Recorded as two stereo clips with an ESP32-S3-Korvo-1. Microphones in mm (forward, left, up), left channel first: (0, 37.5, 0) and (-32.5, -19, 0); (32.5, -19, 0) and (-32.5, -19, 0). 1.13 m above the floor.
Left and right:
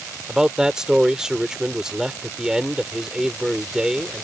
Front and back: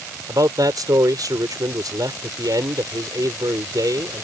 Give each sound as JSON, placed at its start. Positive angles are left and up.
{"t": 0.3, "sound": "a man speaking", "azimuth_deg": 160}